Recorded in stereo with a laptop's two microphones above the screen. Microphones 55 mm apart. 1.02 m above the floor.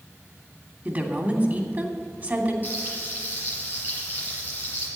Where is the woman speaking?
35° right (ahead or behind), 3 m.